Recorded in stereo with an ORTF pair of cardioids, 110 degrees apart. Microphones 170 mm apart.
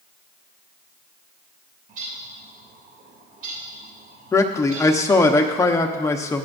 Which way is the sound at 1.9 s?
55° right.